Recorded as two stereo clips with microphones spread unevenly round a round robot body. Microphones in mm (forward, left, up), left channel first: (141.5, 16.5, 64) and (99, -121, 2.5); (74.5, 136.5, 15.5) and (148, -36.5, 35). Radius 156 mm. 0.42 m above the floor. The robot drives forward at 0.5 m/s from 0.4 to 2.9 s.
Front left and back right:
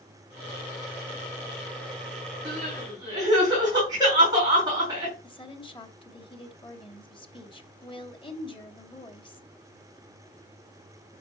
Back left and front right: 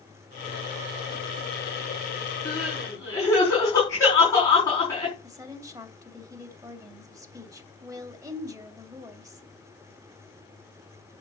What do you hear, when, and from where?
2.5 s crying: 170° right, 4.5 m
5.2 s a woman speaking: 5° left, 2.5 m